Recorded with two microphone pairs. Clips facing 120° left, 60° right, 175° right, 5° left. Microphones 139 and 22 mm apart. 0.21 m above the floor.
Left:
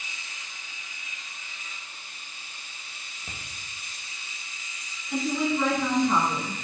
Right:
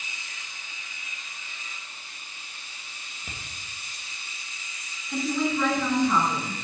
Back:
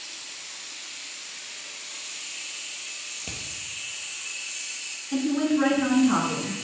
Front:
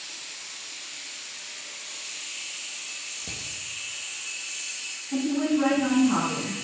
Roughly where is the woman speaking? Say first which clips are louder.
Even, back 1 dB; behind.